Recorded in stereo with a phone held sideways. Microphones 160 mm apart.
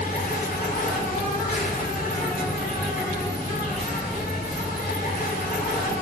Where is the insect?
55° left (ahead or behind), 2.0 m.